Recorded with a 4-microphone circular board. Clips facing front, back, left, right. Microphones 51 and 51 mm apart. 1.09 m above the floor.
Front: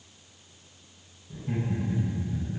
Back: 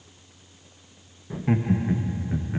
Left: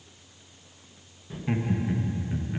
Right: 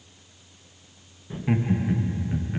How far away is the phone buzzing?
I don't hear a phone buzzing.